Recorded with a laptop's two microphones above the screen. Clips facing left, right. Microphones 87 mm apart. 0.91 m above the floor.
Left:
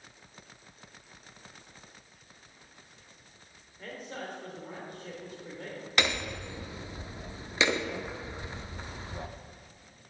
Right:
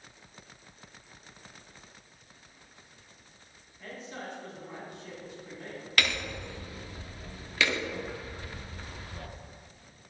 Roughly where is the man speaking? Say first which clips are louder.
Left 1 dB; left.